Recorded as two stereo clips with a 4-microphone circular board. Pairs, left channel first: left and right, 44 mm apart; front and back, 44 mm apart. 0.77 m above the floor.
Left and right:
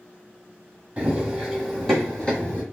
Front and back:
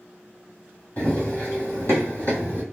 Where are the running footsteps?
35° right, 1.3 m; by 2.6 s 35° left, 1.6 m.